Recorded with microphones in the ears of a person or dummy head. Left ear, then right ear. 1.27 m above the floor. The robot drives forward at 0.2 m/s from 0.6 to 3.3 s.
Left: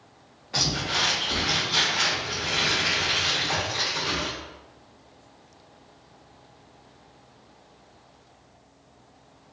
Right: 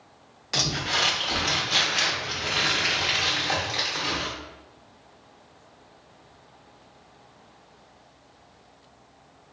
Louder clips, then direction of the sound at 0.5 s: Even; 50° right (ahead or behind).